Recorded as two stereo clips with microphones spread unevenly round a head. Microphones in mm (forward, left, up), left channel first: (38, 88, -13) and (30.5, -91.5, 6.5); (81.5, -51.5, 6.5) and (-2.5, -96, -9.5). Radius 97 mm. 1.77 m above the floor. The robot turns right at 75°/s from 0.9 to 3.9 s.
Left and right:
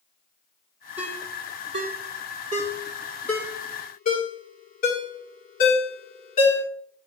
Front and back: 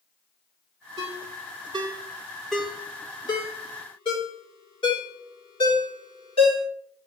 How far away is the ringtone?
About 2.5 m.